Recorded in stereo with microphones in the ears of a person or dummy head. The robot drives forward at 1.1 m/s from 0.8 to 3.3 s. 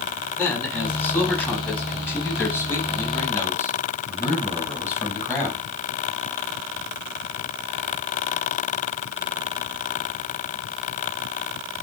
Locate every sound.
0.4 s a man speaking: 10° left (ahead or behind), 9 m; by 5.7 s 15° left (ahead or behind), 6.5 m